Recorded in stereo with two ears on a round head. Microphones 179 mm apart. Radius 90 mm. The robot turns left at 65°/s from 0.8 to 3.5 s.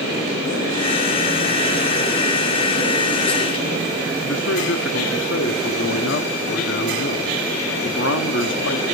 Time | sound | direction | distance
4.2 | a man speaking | 70° left (ahead or behind) | 1.1 m